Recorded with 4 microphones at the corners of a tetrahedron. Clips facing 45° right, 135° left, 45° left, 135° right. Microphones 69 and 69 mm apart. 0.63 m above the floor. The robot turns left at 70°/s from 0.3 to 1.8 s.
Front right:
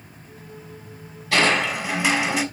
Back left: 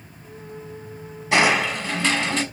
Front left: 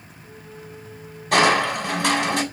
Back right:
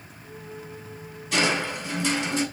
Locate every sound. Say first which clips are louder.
1.3 s crushing: back left 1 dB, front left 7 dB; 65° left, 3 m; by 2.4 s 30° left, 3 m